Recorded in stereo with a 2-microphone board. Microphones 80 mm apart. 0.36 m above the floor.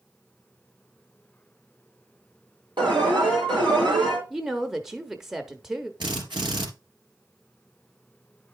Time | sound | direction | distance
2.8 | an alarm | 70° right (ahead or behind) | 5 m
4.3 | a woman speaking | 5° right (ahead or behind) | 0.9 m
6.0 | a drill | 75° right (ahead or behind) | 2.5 m